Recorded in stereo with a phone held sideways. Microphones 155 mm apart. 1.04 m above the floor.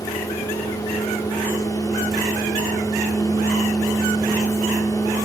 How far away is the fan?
About 1.4 m.